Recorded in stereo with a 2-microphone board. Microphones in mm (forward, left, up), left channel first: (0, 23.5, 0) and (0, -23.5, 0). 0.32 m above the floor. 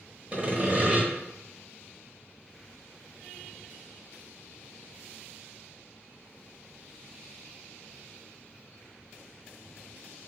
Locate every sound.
0.3 s sawing: 30° right (ahead or behind), 0.9 m